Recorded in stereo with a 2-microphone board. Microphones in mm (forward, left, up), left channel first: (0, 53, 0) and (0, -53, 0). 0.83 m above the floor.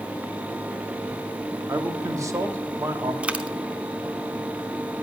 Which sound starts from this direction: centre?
A dropped coin, at 3.2 s.